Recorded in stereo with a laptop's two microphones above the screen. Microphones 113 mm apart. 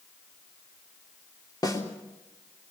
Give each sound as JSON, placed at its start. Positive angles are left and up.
{"t": 1.6, "sound": "a snare drum", "side_deg": 35, "distance_m": 3.0}